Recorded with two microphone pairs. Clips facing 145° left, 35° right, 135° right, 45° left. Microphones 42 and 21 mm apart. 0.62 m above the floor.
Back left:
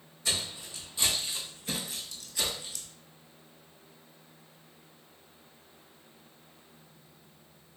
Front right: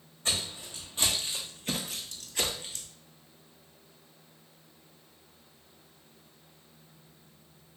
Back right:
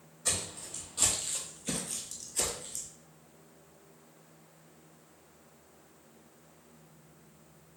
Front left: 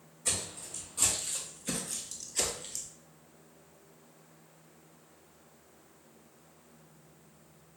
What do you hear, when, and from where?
0.2 s footsteps: 80° right, 1.7 m; by 2.9 s 15° left, 0.9 m